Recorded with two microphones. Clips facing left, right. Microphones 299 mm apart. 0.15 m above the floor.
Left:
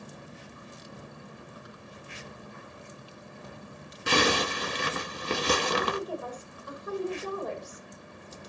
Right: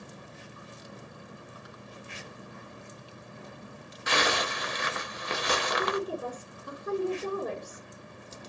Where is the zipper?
35° left (ahead or behind), 0.8 m.